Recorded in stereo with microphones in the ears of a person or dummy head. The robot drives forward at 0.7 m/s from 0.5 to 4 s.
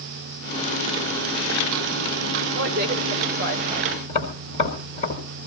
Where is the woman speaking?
55° right (ahead or behind), 1.1 m; by 3.9 s 30° right (ahead or behind), 1.7 m.